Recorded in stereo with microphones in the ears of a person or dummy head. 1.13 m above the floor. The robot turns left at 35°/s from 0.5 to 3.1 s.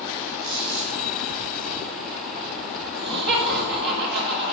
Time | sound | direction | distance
0.4 | a squeak | 65° right (ahead or behind) | 2 m
2.9 | laughter | 55° right (ahead or behind) | 1.5 m